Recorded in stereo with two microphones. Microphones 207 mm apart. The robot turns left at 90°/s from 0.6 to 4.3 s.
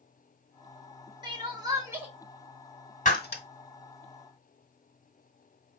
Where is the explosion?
I don't hear an explosion.